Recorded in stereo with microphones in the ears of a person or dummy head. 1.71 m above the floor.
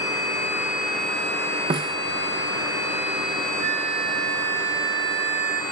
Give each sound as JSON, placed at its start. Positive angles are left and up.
{"t": 1.7, "sound": "a snare drum", "side_deg": -30}
{"t": 3.6, "sound": "a flute", "side_deg": -45}